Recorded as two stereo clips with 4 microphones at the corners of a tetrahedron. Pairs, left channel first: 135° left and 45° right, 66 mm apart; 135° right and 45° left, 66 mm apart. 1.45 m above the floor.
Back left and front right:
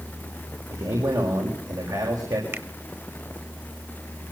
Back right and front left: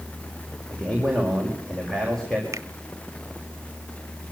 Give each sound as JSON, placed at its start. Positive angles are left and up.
{"t": 0.7, "sound": "a man speaking", "azimuth_deg": -55, "distance_m": 5.5}
{"t": 2.5, "sound": "a finger snap", "azimuth_deg": 5, "distance_m": 1.2}